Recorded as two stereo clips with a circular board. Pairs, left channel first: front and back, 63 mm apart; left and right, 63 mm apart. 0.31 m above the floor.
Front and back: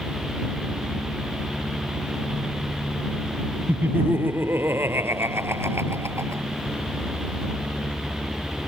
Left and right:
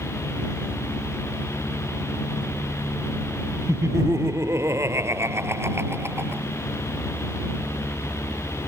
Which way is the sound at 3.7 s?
125° right.